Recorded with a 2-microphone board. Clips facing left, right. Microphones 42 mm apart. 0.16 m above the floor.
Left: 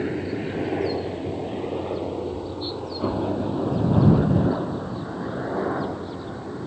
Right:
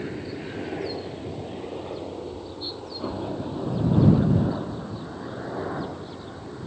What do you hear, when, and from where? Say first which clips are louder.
0.0 s a helicopter: left 6 dB; 20° left (ahead or behind); by 6.7 s 15° left (ahead or behind)